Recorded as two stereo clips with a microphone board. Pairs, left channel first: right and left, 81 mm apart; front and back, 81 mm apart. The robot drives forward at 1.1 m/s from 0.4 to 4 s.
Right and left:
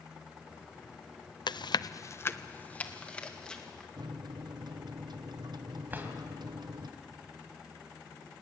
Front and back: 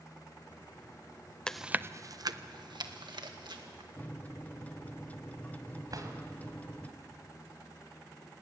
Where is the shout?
I don't hear a shout.